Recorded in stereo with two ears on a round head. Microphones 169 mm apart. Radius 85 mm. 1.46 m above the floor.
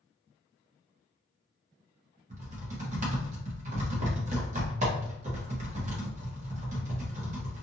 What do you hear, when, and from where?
2.3 s typing on a keyboard: 40° right (ahead or behind), 0.9 m